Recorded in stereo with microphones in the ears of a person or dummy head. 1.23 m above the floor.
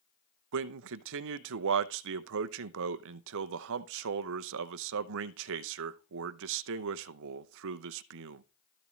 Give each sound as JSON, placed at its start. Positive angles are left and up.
{"t": 0.5, "sound": "a man speaking", "side_deg": -70, "distance_m": 0.8}